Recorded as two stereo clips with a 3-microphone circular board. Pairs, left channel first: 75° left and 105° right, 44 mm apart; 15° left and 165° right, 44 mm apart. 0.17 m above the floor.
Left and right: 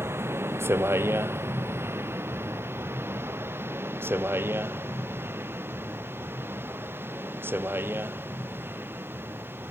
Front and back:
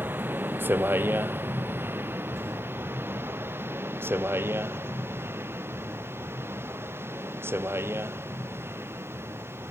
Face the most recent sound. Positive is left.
turn(degrees=-140)